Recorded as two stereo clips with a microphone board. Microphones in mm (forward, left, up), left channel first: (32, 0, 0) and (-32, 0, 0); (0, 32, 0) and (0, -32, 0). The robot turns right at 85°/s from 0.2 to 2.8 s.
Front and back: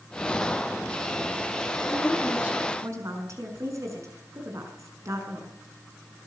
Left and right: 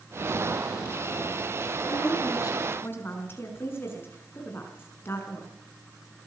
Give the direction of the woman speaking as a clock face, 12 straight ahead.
10 o'clock.